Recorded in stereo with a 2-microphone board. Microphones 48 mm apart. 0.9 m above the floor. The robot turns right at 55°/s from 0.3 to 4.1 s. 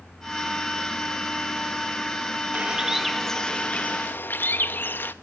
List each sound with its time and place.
2.5 s a bird: 30° right, 1.0 m; by 5.1 s 55° left, 1.0 m